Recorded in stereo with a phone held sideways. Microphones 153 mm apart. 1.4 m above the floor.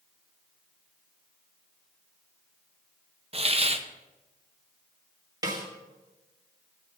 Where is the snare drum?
25° right (ahead or behind), 2 m.